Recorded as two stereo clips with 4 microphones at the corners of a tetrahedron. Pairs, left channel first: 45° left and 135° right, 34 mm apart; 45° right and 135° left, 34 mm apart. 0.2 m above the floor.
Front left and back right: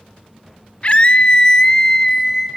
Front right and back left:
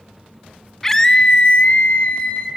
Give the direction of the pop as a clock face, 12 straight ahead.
No pop in this recording.